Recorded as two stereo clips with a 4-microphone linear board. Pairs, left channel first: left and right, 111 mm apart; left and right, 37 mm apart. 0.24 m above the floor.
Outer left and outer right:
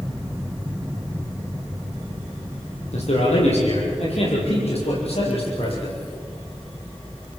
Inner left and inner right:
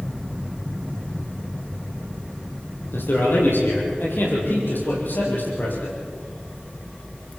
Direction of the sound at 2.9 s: 75° left (ahead or behind).